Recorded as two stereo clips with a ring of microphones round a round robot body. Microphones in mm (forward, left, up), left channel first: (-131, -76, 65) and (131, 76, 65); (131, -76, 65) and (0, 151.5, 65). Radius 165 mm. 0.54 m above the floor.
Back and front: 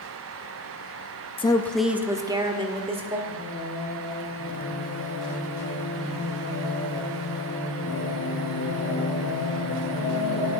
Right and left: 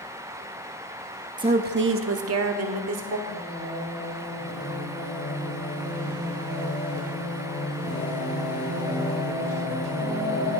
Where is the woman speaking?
165° left, 0.6 m; by 3.2 s 100° left, 1.7 m.